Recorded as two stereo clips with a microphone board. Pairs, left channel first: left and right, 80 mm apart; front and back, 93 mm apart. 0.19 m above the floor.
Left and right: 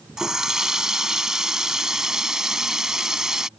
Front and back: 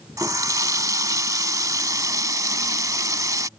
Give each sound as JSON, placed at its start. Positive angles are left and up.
{"t": 0.2, "sound": "a running tap", "azimuth_deg": -170}